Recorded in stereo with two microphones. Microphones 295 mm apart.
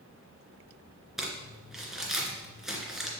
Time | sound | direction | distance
1.2 | crumpling | centre (ahead or behind) | 2.5 m